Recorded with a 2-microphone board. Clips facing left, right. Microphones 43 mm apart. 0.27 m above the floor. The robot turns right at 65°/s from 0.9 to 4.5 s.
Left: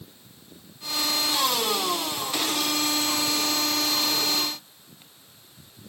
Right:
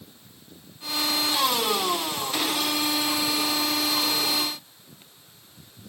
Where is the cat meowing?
I don't hear a cat meowing.